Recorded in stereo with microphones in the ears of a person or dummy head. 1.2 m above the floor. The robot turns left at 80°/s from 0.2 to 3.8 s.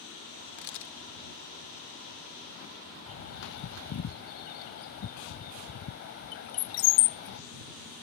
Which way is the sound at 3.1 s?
25° left (ahead or behind).